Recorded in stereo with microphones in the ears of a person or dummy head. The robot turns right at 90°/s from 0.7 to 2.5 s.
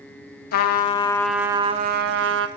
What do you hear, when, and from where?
0.5 s a trumpet: 125° left, 0.6 m; by 2.5 s 75° right, 0.6 m